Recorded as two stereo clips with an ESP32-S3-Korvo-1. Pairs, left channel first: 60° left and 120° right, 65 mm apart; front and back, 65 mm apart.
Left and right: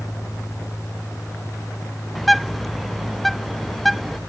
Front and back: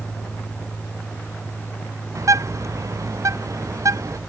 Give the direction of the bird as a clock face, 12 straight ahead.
7 o'clock.